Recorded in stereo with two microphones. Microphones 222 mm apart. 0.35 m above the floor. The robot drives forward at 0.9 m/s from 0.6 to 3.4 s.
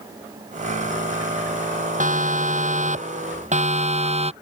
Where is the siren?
35° right (ahead or behind); by 4.3 s 30° right (ahead or behind).